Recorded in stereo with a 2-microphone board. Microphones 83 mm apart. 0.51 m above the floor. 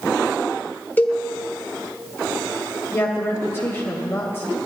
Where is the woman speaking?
30° left (ahead or behind), 2 m.